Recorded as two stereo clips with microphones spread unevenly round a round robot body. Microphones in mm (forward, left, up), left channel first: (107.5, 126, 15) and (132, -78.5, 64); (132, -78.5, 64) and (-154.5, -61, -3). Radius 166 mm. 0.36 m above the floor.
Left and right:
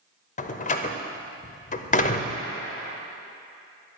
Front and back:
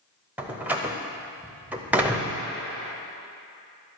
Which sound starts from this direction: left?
A door slam, at 0.4 s.